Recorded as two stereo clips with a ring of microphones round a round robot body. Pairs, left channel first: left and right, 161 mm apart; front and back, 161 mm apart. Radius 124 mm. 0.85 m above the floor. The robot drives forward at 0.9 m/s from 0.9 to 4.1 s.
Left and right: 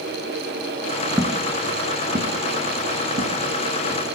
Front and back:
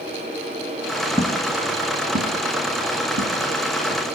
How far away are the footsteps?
About 0.8 m.